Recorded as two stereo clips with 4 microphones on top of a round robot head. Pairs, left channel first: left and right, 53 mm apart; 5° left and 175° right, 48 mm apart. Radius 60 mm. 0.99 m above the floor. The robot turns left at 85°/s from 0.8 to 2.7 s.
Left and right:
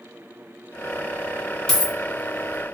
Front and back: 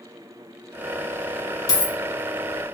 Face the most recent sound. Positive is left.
turn(degrees=-75)